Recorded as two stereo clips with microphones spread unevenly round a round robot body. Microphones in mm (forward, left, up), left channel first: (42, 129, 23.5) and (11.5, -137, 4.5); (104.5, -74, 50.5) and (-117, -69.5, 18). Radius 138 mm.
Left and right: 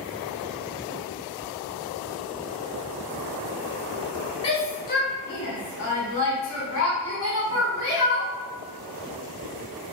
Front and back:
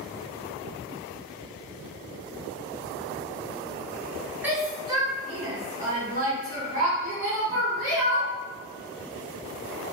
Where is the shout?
130° left, 0.6 m.